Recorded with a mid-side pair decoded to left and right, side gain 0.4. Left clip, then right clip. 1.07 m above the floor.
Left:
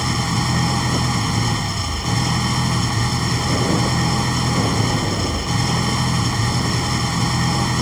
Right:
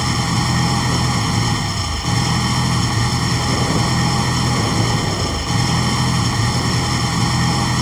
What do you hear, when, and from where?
0.0 s an engine running: 15° right